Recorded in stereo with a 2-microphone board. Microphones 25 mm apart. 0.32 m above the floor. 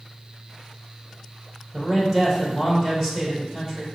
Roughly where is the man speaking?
Right.